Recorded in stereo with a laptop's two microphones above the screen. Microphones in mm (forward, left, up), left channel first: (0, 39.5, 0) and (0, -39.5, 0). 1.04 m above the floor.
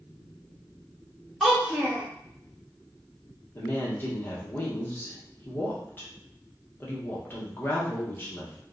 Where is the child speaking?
Centre (ahead or behind), 0.9 m.